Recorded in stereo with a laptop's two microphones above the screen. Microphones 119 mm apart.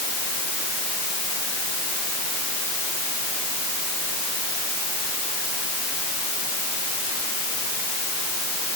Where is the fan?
I don't hear a fan.